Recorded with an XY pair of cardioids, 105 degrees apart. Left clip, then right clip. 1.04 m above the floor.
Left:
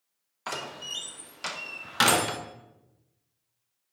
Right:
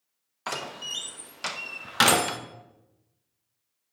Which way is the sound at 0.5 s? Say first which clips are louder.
Right 2 dB; 15° right.